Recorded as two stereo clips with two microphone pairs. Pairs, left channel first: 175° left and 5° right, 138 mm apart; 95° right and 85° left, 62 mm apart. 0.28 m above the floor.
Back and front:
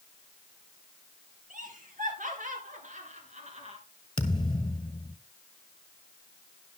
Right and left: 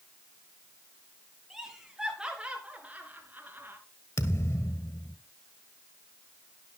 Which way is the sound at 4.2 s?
135° right.